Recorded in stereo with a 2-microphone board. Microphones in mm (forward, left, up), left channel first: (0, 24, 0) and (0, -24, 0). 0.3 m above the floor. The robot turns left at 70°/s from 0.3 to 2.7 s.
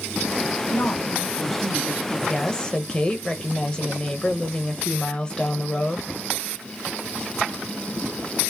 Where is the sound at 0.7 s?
65° left, 1.6 m; by 2.2 s 40° right, 1.6 m.